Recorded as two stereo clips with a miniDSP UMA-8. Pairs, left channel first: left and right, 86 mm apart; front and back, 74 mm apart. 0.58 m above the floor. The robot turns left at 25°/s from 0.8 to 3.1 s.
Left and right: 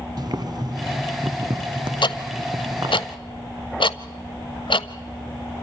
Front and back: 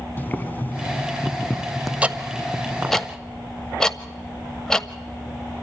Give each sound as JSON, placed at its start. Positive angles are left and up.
{"t": 0.2, "sound": "boiling", "azimuth_deg": -60, "distance_m": 0.9}
{"t": 2.0, "sound": "ticking", "azimuth_deg": 110, "distance_m": 0.7}